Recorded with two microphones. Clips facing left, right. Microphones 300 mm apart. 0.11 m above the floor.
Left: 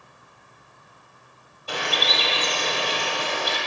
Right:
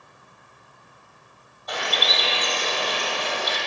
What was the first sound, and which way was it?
A bird, 35° left (ahead or behind).